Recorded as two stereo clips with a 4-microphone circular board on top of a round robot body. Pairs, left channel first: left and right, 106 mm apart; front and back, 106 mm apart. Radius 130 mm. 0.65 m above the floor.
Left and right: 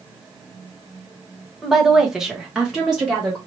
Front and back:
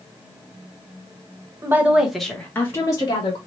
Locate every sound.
1.6 s a woman speaking: 175° right, 1.2 m; by 3.4 s 5° right, 1.4 m